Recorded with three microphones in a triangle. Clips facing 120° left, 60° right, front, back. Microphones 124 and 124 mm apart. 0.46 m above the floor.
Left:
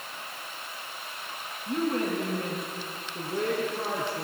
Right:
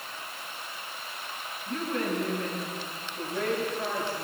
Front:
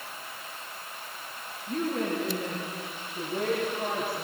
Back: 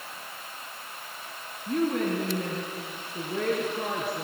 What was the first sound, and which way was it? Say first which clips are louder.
A woman speaking: left 3 dB, back 3 dB; 175° right.